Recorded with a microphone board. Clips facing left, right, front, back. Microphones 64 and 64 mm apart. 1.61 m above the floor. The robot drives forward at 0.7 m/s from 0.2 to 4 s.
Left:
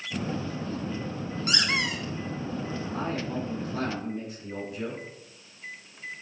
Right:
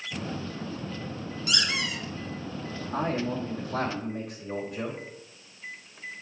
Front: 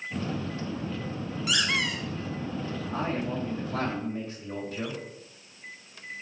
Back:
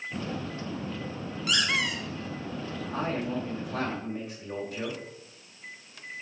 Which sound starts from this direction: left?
A squeak, at 1.5 s.